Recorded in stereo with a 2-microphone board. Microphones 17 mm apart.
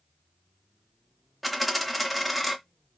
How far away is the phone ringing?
No phone ringing in this recording.